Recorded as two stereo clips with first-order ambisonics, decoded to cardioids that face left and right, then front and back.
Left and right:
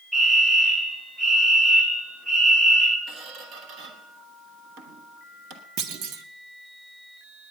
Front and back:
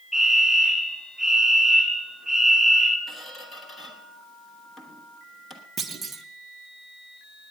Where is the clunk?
115° right, 0.7 m.